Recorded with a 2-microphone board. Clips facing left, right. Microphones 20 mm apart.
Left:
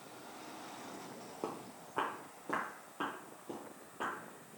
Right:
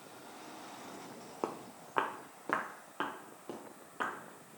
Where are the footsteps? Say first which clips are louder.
Right 4 dB; 50° right (ahead or behind), 0.6 m; by 4.1 s 45° right (ahead or behind), 2 m.